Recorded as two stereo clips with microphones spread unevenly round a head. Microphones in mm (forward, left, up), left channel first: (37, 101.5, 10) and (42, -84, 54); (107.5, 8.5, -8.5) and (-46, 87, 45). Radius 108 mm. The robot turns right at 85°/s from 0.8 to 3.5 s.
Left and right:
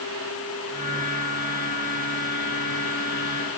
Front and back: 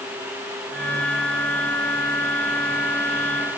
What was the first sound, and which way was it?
Only background noise.